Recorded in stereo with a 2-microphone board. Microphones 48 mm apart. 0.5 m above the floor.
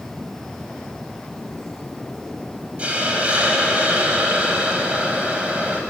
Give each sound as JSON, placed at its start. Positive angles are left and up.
{"t": 2.8, "sound": "a hiss", "side_deg": -30, "distance_m": 1.5}